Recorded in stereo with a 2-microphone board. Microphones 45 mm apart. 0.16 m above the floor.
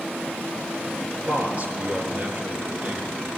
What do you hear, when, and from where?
1.3 s a man speaking: 35° right (ahead or behind), 3.5 m